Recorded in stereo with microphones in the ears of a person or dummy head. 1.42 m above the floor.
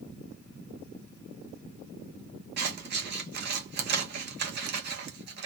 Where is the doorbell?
No doorbell in this recording.